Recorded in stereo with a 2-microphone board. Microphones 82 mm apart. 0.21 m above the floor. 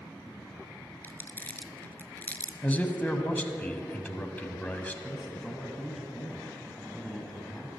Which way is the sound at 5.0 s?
Centre (ahead or behind).